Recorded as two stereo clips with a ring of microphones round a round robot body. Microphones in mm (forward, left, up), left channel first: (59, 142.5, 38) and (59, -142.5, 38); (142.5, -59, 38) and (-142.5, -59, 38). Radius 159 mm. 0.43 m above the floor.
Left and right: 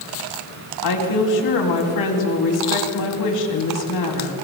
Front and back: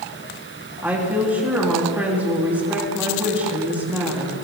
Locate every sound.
0.8 s a woman speaking: 95° left, 3 m